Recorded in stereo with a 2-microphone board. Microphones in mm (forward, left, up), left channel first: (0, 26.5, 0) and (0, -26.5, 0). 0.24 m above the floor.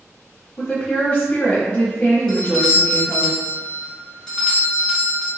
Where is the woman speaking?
25° left (ahead or behind), 1.2 m.